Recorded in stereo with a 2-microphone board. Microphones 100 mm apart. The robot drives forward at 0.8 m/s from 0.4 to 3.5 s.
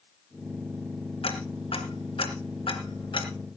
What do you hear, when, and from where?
1.2 s ticking: 75° left (ahead or behind), 2.5 m; by 3.3 s 60° left (ahead or behind), 3 m